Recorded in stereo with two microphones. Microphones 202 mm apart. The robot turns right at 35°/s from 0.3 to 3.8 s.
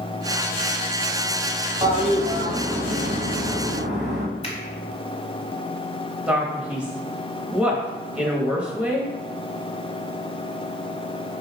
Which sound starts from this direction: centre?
A man speaking, at 6.3 s.